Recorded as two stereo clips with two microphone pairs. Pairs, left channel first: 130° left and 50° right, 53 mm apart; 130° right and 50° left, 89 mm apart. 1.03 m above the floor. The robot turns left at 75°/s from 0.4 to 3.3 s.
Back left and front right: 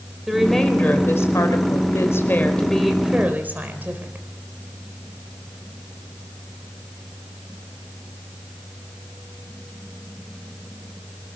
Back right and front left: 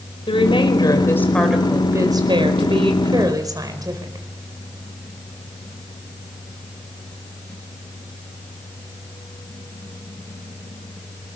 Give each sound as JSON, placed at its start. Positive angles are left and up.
{"t": 0.3, "sound": "a woman speaking", "azimuth_deg": -135, "distance_m": 4.5}